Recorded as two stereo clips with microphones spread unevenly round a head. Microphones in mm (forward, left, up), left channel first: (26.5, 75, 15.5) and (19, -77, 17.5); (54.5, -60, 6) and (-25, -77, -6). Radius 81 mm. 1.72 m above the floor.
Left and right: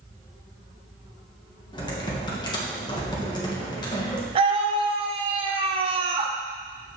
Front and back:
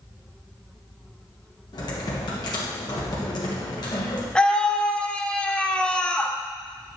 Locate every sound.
1.7 s typing on a keyboard: 30° left, 1.2 m
4.3 s a scream: 55° right, 0.8 m